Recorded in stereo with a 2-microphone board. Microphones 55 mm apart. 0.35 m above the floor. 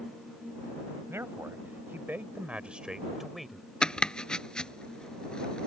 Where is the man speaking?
55° right (ahead or behind); by 3.7 s 5° left (ahead or behind).